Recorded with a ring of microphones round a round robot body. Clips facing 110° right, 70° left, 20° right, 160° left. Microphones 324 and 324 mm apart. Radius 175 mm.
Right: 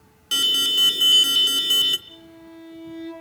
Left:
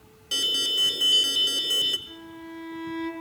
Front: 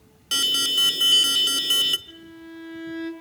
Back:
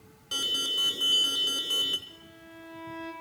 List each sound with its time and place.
0.3 s an alarm: 50° right, 1.2 m
2.1 s a violin: 5° left, 6.5 m